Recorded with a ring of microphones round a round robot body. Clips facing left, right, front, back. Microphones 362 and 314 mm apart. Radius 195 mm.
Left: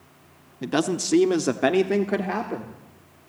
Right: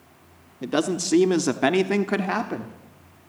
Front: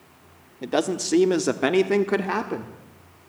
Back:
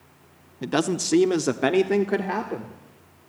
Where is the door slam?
No door slam in this recording.